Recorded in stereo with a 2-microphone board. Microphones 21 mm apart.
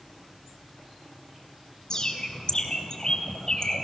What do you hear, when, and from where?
1.9 s a bird: 35° left (ahead or behind), 1.5 m